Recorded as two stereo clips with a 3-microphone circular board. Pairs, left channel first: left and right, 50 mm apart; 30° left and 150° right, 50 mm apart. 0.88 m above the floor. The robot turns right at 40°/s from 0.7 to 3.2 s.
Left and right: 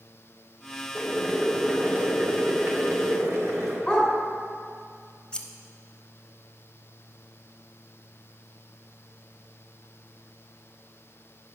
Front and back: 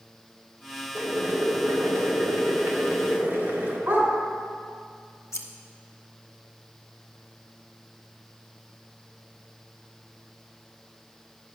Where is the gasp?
No gasp in this recording.